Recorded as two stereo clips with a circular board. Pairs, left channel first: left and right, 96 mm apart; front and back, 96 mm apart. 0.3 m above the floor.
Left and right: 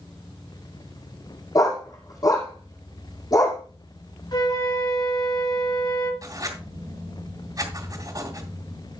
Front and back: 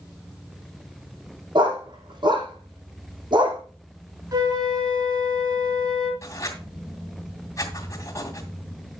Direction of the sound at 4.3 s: 130° left.